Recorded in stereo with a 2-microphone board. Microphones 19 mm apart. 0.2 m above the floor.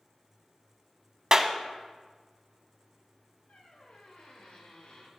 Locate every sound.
1.3 s a clap: 30° right (ahead or behind), 0.9 m
3.5 s a squeak: 75° left (ahead or behind), 3 m